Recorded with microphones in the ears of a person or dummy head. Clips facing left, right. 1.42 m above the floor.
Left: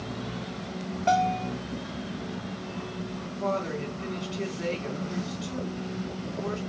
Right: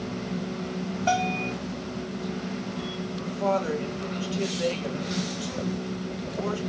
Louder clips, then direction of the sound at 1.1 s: Left 2 dB; 20° right (ahead or behind).